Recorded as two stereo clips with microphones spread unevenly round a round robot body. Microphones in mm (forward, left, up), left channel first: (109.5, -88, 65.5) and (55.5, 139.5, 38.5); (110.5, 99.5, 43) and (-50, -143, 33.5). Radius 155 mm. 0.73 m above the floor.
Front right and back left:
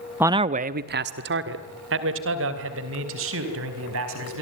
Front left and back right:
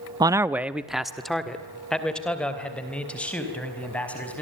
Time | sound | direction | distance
0.2 | a man speaking | 170° left | 0.5 m